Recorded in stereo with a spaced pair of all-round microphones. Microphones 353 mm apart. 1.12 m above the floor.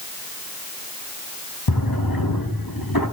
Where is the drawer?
85° left, 5 m.